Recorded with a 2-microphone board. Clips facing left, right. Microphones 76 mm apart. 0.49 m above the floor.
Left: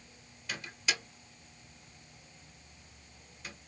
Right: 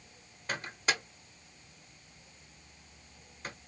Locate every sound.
0.5 s a microwave: 45° right (ahead or behind), 0.7 m